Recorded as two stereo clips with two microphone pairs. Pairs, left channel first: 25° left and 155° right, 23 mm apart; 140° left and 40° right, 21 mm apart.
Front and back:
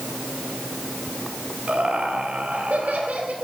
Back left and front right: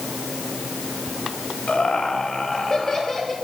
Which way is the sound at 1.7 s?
Straight behind.